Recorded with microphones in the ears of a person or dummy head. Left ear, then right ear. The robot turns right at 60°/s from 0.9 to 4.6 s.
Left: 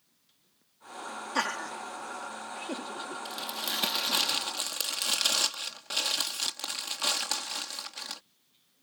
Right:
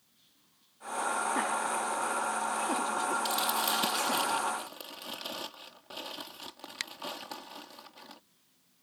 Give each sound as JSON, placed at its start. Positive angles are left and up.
{"t": 1.4, "sound": "laughter", "side_deg": 85}
{"t": 3.2, "sound": "crumpling", "azimuth_deg": -25}